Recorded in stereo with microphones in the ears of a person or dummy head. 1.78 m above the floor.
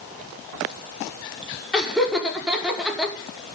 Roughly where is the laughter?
Centre.